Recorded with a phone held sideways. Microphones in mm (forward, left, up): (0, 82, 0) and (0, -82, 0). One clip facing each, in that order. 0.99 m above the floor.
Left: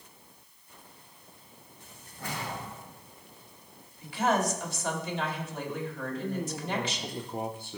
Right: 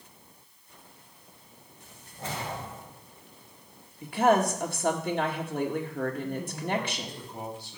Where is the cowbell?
No cowbell in this recording.